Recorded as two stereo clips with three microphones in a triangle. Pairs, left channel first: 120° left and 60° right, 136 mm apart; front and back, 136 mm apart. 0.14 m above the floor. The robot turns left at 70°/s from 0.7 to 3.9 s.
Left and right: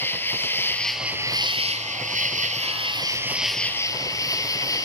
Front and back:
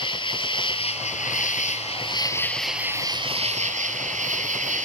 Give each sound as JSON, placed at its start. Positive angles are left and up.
{"t": 0.0, "sound": "an insect", "azimuth_deg": 45, "distance_m": 1.0}